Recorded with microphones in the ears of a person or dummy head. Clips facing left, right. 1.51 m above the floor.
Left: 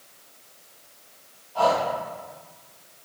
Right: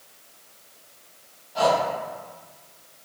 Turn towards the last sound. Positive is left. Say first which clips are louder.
# right 1 dB
turn(degrees=-25)  # may be behind; listen again after turning